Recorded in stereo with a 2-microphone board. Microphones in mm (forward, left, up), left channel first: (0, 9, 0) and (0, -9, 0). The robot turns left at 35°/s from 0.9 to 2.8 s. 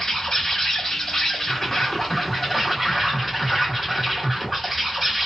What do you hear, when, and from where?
0.0 s an insect: 60° left, 1.5 m; by 5.3 s 5° right, 1.5 m